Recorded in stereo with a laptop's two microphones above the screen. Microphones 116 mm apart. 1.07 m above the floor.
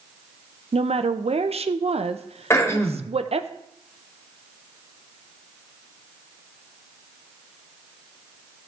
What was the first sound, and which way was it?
A woman speaking, 60° right (ahead or behind).